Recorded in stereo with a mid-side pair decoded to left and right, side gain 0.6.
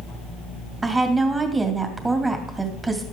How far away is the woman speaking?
About 2.5 m.